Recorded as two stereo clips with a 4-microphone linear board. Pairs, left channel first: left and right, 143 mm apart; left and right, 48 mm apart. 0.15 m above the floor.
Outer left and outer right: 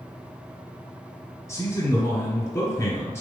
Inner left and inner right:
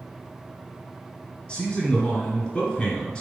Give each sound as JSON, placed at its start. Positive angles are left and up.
{"t": 1.5, "sound": "a man speaking", "side_deg": 20, "distance_m": 1.5}